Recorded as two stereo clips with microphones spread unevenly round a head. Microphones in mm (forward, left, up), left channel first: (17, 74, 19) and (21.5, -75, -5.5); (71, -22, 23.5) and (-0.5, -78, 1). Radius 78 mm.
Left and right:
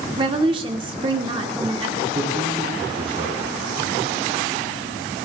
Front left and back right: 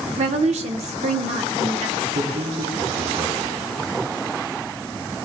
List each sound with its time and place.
0.2 s a woman speaking: 150° right, 1.1 m
2.1 s a man speaking: 145° right, 3.5 m